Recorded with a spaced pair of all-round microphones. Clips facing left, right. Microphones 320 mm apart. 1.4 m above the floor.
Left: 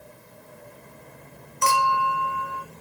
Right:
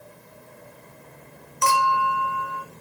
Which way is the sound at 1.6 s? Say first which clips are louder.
Right 1 dB; 20° left (ahead or behind).